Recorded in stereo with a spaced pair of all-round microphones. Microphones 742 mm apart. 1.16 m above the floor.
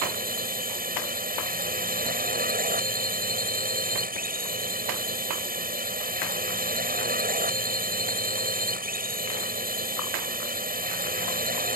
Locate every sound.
0.0 s a drone: 10° right (ahead or behind)